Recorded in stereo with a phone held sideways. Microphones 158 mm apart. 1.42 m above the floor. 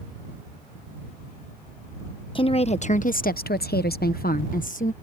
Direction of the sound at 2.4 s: 35° left (ahead or behind).